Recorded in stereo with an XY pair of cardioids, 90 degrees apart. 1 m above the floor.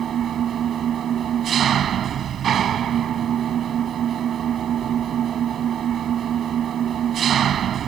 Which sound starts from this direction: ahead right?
An engine running, at 0.0 s.